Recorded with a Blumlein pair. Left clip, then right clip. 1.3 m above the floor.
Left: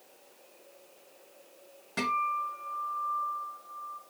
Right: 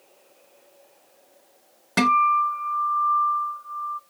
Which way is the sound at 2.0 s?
55° right.